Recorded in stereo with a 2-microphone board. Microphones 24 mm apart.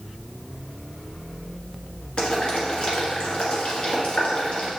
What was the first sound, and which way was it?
Boiling, 40° left (ahead or behind).